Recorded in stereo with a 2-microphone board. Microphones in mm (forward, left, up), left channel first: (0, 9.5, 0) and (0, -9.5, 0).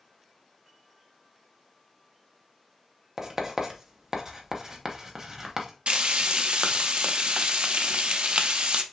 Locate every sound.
3.2 s writing: 35° right (ahead or behind), 1.0 m
5.9 s frying: 60° right (ahead or behind), 0.6 m